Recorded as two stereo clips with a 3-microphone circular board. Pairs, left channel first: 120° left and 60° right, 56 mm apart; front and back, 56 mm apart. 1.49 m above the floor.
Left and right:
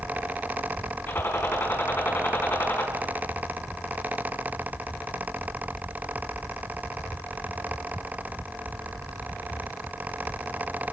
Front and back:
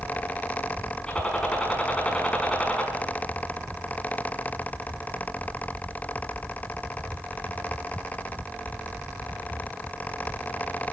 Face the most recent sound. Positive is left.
turn(degrees=70)